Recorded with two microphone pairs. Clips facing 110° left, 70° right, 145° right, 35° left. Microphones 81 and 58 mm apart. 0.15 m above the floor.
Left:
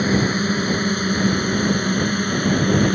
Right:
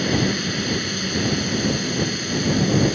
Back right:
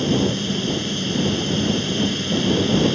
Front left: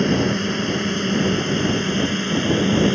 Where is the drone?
65° left; by 3.0 s 90° left.